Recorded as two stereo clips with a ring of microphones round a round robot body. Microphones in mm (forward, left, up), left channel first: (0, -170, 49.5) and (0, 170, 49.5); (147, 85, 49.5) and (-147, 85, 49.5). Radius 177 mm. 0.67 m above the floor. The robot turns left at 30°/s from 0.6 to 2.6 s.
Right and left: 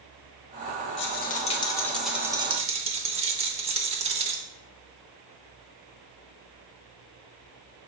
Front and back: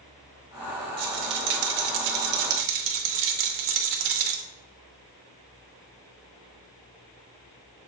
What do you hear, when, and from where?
1.0 s a rattle: 150° right, 0.8 m; by 4.4 s 165° left, 0.8 m